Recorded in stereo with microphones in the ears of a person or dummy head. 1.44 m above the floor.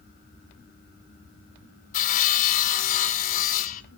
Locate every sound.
1.9 s sawing: 45° left (ahead or behind), 0.8 m